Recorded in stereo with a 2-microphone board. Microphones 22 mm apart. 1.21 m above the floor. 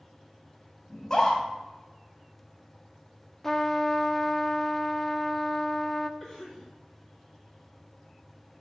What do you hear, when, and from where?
0.9 s a scream: 20° left (ahead or behind), 3 m
3.4 s a trumpet: 20° left (ahead or behind), 0.5 m
6.2 s a cough: 10° left (ahead or behind), 3.5 m